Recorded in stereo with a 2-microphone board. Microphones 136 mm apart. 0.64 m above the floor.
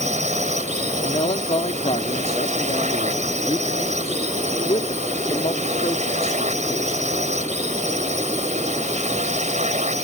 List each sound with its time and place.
0.0 s a drone: 55° right (ahead or behind)
1.0 s a man speaking: 50° left (ahead or behind)